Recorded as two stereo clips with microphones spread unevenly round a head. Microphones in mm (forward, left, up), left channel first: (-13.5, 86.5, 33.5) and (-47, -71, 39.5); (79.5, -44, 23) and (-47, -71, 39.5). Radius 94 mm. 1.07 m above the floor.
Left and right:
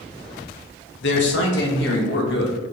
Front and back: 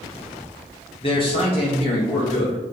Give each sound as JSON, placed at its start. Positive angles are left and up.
{"t": 1.0, "sound": "a man speaking", "azimuth_deg": 70, "distance_m": 0.7}